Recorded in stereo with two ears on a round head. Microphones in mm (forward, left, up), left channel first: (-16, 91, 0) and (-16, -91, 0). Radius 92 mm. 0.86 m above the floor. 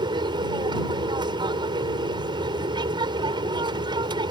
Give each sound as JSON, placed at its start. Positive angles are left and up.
{"t": 0.0, "sound": "an aircraft", "side_deg": -25}